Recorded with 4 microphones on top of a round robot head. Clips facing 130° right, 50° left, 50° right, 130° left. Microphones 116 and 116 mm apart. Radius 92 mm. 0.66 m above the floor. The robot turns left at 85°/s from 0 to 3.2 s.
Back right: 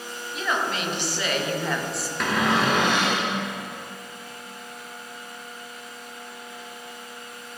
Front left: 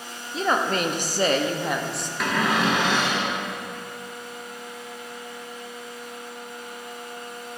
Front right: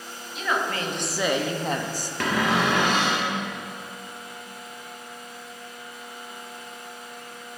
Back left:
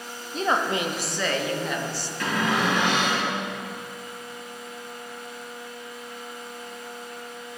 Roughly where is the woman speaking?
Left.